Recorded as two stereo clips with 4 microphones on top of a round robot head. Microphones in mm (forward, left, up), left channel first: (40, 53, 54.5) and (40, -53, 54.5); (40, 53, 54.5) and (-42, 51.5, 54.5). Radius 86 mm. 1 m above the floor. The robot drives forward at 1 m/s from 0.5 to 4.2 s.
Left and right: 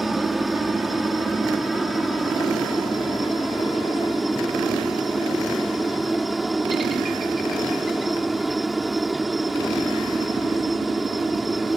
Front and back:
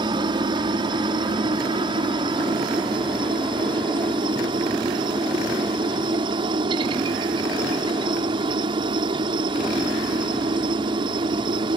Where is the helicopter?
Straight behind.